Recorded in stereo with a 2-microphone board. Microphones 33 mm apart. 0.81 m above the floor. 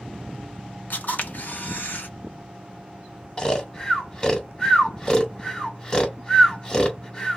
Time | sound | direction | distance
0.9 | a camera shutter | 60° left (ahead or behind) | 0.9 m
3.4 | snoring | 25° left (ahead or behind) | 1.0 m